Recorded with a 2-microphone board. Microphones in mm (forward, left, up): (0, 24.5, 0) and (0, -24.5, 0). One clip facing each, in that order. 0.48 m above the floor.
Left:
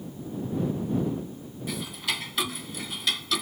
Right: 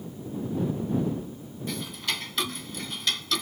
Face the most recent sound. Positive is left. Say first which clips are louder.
# even
turn(degrees=5)  # may be behind; listen again after turning